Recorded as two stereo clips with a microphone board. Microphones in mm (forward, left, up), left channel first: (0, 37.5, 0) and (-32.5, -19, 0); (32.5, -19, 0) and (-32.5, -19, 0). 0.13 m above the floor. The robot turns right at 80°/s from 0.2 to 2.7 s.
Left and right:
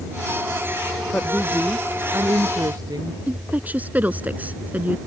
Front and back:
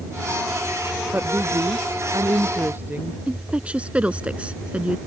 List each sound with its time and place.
1.1 s a woman speaking: 115° left; by 3.2 s 120° right
3.3 s a woman speaking: 135° right